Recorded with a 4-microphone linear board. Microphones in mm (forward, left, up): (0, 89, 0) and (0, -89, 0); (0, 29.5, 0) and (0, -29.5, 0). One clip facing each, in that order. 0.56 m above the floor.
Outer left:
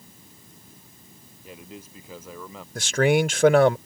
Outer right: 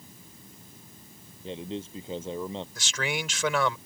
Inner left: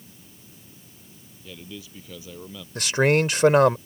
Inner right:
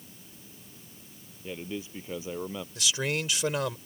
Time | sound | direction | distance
1.4 | a man speaking | 30° right (ahead or behind) | ?
2.8 | a man speaking | 55° left (ahead or behind) | ?